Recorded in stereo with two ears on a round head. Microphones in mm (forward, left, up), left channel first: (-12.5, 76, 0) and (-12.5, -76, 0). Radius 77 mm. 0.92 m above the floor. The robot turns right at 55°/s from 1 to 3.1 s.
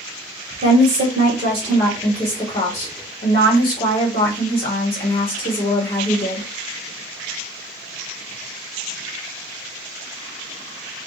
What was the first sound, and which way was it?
A woman speaking, 65° right.